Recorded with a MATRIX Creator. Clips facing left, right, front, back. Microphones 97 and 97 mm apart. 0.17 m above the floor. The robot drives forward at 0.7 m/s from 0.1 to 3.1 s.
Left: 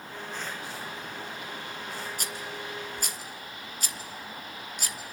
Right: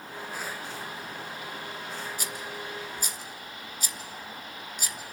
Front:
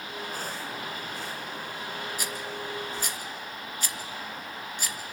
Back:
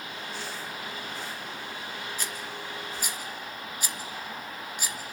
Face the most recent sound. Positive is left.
turn(degrees=105)